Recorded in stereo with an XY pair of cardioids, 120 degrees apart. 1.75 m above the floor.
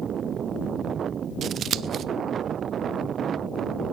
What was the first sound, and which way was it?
Scissors, 55° right.